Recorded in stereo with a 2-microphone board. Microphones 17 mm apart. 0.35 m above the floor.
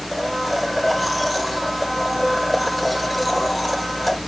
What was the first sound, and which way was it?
A blender, 5° right (ahead or behind).